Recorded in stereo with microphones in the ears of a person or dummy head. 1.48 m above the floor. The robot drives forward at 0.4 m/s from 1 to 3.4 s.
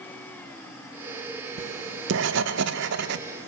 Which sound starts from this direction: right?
Writing, at 1.6 s.